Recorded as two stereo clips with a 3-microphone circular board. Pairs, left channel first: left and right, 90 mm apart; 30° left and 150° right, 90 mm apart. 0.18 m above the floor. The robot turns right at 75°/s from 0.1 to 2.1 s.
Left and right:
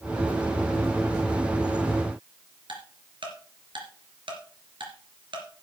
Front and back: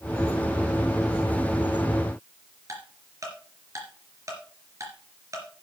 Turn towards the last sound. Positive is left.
turn(degrees=-100)